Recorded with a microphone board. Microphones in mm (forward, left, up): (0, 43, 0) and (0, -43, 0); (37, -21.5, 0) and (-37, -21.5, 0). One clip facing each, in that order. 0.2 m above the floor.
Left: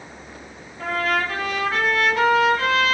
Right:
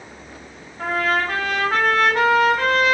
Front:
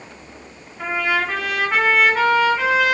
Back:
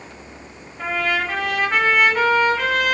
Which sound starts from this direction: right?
A trumpet, at 0.8 s.